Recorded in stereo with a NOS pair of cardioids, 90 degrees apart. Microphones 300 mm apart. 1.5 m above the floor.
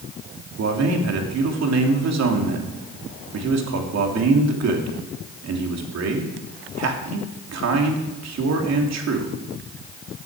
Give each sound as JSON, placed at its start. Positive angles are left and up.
{"t": 0.6, "sound": "a man speaking", "azimuth_deg": -60, "distance_m": 3.0}